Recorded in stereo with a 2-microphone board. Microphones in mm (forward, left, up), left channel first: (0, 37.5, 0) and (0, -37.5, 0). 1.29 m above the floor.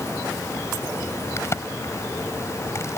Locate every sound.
1.4 s a crack: 40° left (ahead or behind)